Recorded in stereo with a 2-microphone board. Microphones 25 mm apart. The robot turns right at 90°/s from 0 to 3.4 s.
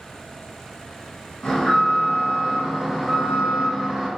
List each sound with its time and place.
1.4 s an alarm: 45° left, 1.4 m; by 4.1 s 135° right, 1.4 m